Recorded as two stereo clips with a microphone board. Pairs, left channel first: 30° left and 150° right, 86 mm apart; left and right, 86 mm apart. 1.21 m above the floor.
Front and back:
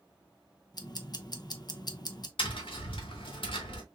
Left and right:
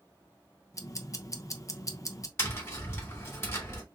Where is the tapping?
30° left, 1.9 m.